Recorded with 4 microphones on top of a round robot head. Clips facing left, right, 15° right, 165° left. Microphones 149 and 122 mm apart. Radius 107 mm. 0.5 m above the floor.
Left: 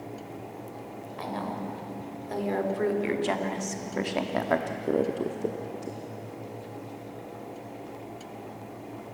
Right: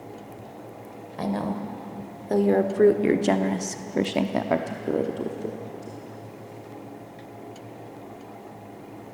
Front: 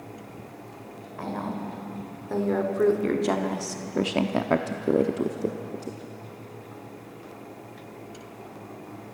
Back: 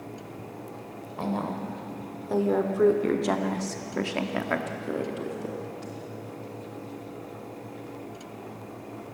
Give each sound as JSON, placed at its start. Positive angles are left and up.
{"t": 1.2, "sound": "a woman speaking", "azimuth_deg": -125, "distance_m": 2.5}